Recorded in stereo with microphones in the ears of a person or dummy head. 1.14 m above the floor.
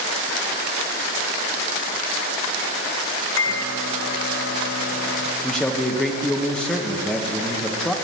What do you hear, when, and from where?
3.4 s a microwave: 75° left (ahead or behind), 1.0 m
5.4 s a man speaking: 10° left (ahead or behind), 1.2 m